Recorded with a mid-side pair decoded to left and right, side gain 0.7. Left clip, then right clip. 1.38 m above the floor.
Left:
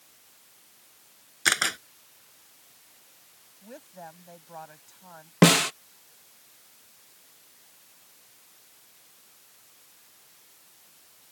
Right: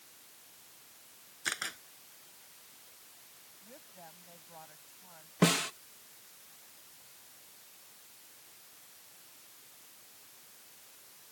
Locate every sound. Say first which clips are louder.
1.4 s a camera shutter: left 12 dB; 50° left
3.6 s a woman speaking: left 10 dB; 40° left
5.4 s a snare drum: left 9 dB; 40° left